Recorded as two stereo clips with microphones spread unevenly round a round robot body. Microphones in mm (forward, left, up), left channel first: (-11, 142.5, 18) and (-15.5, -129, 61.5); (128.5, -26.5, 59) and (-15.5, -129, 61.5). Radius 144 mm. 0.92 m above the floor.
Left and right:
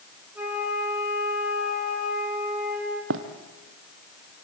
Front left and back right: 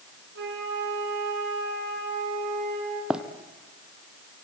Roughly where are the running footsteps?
Ahead right.